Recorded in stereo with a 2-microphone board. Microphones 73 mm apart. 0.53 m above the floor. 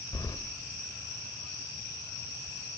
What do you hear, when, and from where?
0.1 s keys jangling: 65° left (ahead or behind), 1.5 m